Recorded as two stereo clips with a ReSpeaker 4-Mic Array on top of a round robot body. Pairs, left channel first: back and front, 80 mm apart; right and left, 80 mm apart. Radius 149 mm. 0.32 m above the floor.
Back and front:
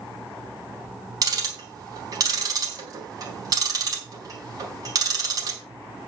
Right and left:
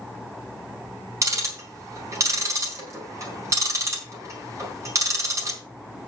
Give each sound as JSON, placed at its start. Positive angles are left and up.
{"t": 1.2, "sound": "ticking", "azimuth_deg": 40, "distance_m": 4.0}